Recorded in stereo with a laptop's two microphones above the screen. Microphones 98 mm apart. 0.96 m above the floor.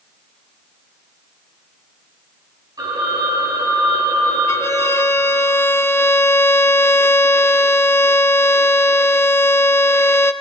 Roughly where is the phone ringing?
Right.